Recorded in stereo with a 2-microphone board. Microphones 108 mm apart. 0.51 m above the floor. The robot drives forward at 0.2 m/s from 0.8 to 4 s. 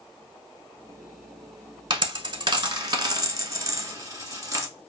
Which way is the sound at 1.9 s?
45° right (ahead or behind).